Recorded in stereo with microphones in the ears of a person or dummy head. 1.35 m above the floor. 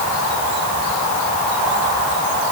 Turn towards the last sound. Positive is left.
No sound to turn to.